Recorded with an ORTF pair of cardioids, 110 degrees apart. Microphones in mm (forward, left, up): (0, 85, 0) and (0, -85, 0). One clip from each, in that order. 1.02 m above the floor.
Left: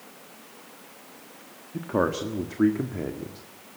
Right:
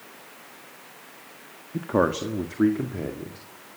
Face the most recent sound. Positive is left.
turn(degrees=5)